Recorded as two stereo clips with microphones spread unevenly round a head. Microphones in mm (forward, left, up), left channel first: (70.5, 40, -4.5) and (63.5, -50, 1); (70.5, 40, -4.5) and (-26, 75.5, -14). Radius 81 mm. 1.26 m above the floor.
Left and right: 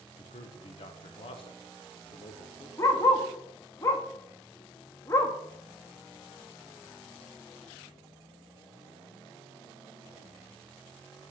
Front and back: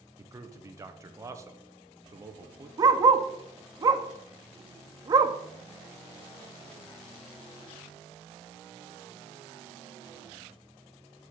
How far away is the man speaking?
About 1.0 m.